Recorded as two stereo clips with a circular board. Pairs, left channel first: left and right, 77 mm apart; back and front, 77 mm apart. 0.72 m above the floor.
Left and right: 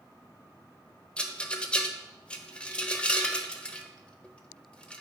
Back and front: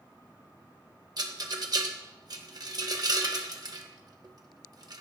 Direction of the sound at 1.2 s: 20° left.